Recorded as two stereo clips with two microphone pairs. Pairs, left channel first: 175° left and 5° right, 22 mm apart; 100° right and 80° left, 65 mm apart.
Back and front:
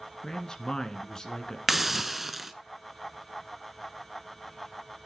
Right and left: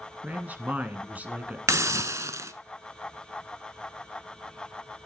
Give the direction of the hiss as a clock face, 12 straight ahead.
10 o'clock.